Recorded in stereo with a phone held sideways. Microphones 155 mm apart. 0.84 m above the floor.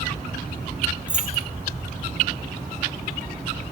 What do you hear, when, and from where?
1.1 s keys jangling: 5° right (ahead or behind), 3.5 m